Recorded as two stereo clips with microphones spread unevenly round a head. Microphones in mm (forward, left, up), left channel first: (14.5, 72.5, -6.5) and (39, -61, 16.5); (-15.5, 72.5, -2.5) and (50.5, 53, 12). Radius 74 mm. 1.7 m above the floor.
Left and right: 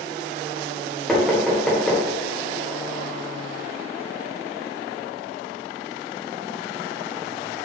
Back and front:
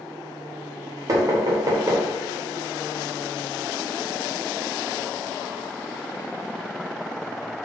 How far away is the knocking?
About 0.7 m.